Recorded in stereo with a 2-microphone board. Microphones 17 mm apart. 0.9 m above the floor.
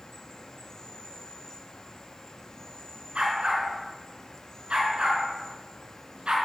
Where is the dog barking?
75° right (ahead or behind), 5.5 m.